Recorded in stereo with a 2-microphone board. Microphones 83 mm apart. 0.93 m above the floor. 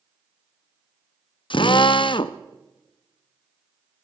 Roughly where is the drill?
Left.